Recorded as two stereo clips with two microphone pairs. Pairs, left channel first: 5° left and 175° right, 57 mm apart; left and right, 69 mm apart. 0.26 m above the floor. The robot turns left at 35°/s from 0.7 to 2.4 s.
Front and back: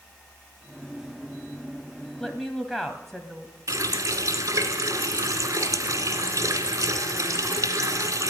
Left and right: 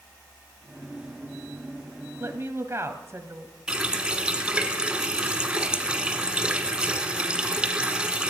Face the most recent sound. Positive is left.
turn(degrees=-165)